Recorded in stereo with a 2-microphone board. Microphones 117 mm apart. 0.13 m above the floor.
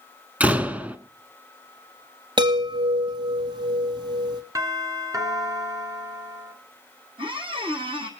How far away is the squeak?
About 1.9 m.